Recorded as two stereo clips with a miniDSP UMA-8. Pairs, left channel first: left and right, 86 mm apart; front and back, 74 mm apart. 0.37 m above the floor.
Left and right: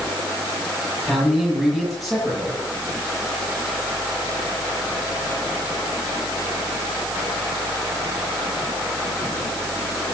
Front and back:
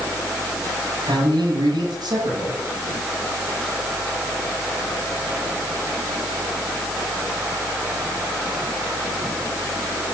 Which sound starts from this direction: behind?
A man speaking, at 1.1 s.